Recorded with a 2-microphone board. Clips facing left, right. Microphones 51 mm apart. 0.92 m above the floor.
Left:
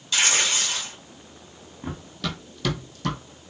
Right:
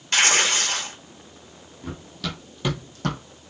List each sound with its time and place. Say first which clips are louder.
0.1 s tearing paper: right 3 dB; 55° right (ahead or behind), 0.8 m
1.8 s running footsteps: left 1 dB; 30° left (ahead or behind), 1.5 m; by 3.2 s 50° right (ahead or behind), 1.7 m